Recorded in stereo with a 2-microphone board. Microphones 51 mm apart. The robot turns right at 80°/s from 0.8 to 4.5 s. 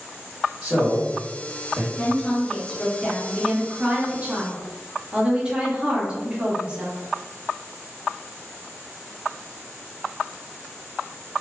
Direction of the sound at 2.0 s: 20° left (ahead or behind).